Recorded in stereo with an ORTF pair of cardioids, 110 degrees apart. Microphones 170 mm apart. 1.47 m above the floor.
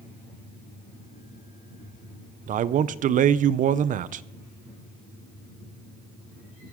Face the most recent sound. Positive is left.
turn(degrees=-50)